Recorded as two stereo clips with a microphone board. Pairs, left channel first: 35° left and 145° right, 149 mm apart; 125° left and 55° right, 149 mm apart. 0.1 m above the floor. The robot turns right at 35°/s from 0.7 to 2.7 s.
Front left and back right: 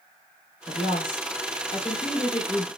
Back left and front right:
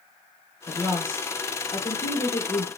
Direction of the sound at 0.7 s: 35° left.